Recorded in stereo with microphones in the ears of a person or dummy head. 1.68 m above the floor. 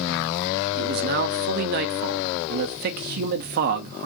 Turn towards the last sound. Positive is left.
turn(degrees=-50)  # may be behind; listen again after turning